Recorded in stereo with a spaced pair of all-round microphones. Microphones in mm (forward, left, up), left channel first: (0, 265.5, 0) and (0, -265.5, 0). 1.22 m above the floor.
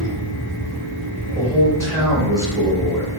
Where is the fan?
20° right (ahead or behind), 2.0 m.